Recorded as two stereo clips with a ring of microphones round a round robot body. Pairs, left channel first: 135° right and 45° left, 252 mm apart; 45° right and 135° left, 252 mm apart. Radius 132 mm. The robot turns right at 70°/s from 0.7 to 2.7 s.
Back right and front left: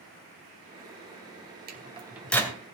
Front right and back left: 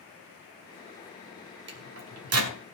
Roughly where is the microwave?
Left.